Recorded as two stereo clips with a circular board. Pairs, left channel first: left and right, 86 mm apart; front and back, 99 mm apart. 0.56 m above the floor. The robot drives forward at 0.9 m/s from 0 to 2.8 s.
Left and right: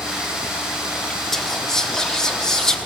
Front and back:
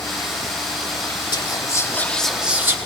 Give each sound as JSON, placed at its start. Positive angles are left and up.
{"t": 1.3, "sound": "whispering", "azimuth_deg": 5, "distance_m": 1.2}